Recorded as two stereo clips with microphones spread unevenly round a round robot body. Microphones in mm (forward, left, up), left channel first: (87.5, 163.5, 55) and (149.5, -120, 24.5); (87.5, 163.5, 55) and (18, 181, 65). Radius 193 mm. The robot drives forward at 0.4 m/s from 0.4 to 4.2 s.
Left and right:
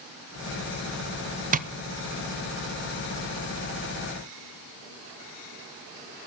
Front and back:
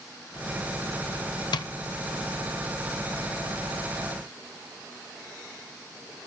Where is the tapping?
10° right, 0.7 m; by 1.7 s 15° right, 0.6 m.